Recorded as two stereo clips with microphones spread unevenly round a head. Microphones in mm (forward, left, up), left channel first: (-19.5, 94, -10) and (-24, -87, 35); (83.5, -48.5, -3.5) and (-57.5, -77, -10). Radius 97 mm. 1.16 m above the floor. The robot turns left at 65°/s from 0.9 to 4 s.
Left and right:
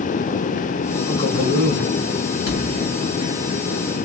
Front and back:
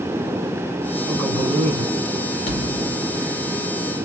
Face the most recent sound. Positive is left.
turn(degrees=-55)